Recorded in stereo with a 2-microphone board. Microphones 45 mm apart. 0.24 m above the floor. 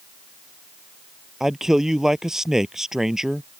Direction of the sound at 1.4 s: 10° right (ahead or behind).